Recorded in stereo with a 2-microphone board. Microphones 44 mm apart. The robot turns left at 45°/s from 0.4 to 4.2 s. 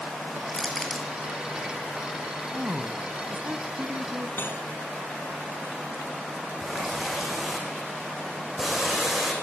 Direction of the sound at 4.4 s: 50° left (ahead or behind).